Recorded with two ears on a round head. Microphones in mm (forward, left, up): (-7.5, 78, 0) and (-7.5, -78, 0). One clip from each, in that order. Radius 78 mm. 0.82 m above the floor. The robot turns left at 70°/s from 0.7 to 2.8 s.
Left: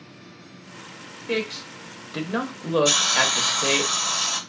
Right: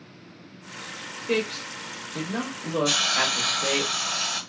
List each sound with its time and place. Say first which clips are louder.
1.3 s a man speaking: even; 5° right (ahead or behind), 0.6 m; by 3.9 s 65° left (ahead or behind), 0.6 m
2.9 s a hiss: left 2 dB; 20° left (ahead or behind), 1.0 m